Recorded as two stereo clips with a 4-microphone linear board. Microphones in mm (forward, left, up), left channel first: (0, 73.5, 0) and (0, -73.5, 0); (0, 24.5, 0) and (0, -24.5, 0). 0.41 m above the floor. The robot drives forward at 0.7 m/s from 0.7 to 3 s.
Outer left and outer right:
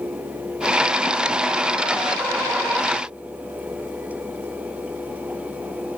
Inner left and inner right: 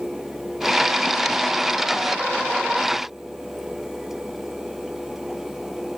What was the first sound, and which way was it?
Only background noise.